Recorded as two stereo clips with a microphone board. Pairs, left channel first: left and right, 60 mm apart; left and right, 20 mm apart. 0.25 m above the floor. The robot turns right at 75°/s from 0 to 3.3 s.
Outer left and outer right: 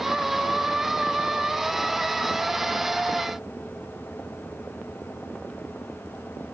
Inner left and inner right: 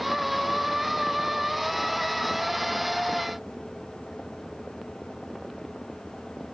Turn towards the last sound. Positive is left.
No sound to turn to.